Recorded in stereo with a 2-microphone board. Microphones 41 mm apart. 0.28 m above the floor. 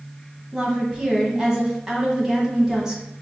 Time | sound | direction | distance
0.5 | a woman speaking | 15° right (ahead or behind) | 1.5 m